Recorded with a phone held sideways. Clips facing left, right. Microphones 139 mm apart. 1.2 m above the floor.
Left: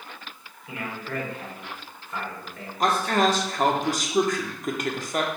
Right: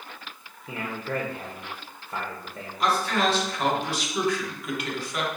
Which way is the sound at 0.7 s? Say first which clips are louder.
Right 2 dB; 35° right (ahead or behind).